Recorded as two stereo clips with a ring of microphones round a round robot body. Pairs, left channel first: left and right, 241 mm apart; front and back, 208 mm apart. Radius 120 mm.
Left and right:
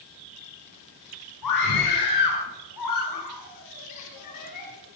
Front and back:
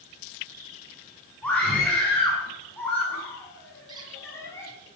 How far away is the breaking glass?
I don't hear breaking glass.